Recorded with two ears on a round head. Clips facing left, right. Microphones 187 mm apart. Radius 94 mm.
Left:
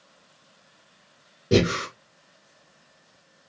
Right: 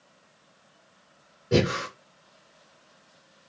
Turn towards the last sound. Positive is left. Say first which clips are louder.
# left 3 dB
turn(degrees=40)  # may be behind; listen again after turning